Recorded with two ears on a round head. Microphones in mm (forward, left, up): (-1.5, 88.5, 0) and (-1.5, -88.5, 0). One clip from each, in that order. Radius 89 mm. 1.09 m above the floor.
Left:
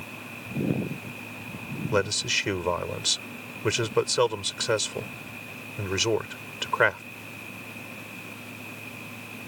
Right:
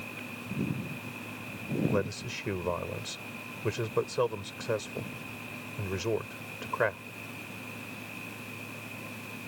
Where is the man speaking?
80° left.